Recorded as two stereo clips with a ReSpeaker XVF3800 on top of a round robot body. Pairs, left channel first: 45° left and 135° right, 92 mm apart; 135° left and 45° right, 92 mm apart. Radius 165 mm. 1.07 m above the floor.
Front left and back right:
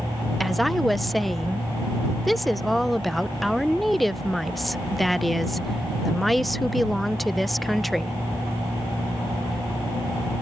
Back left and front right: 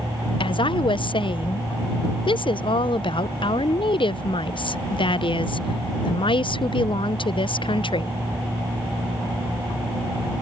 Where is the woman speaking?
135° left.